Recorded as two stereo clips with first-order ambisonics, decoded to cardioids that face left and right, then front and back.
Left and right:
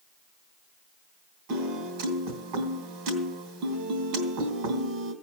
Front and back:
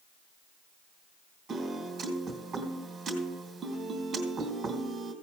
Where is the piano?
105° right, 3 m.